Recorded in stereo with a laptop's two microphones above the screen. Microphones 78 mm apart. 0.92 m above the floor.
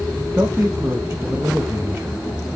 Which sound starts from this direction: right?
A man speaking, at 0.2 s.